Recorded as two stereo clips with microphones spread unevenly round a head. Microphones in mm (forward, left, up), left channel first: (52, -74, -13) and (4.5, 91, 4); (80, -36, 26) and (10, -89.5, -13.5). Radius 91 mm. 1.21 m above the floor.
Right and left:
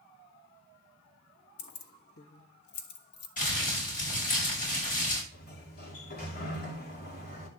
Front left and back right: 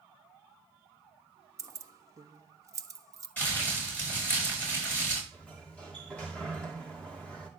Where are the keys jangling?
85° right, 1.2 m.